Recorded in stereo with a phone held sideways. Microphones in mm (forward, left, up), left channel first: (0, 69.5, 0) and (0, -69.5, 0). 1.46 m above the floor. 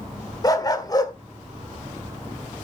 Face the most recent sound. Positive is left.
turn(degrees=30)  # may be behind; listen again after turning